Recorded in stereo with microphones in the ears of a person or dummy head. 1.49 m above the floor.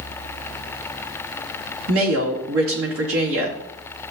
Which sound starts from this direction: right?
A woman speaking, at 1.9 s.